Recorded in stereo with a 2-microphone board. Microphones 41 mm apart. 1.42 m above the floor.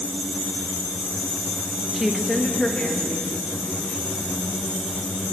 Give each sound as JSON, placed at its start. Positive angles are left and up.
{"t": 1.9, "sound": "a woman speaking", "side_deg": -10, "distance_m": 0.9}